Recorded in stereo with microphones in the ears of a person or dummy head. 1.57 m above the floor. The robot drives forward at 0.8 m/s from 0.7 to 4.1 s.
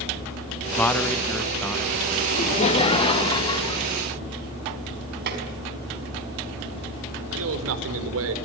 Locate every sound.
0.8 s a man speaking: 10° left (ahead or behind), 1.5 m; by 2.2 s 5° left (ahead or behind), 2.5 m
2.3 s laughter: 35° left (ahead or behind), 1.8 m; by 3.9 s 20° left (ahead or behind), 3 m
5.3 s tapping: 55° right (ahead or behind), 5 m
7.3 s a man speaking: 80° right, 5 m